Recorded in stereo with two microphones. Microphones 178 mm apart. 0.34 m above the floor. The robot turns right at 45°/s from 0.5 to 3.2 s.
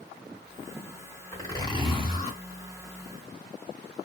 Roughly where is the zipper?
Ahead left.